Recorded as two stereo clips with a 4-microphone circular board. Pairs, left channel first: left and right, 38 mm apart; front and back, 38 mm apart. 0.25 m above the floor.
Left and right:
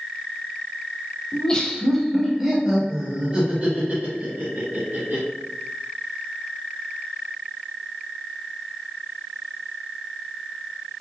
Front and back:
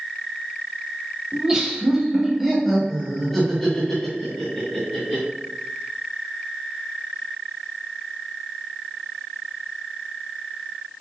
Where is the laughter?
130° left, 1.2 m; by 5.2 s 65° right, 1.9 m.